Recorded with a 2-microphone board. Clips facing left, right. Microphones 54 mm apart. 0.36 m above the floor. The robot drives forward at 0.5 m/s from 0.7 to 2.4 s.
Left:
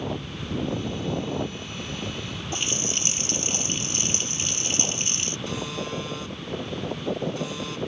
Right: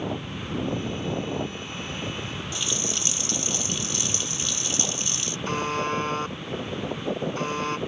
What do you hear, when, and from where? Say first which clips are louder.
2.5 s a running tap: left 3 dB; 40° left (ahead or behind)
5.5 s a buzzer: right 7 dB; 45° right (ahead or behind)